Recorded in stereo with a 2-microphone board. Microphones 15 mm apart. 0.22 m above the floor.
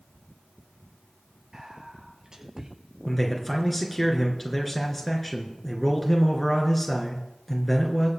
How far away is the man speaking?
About 3 m.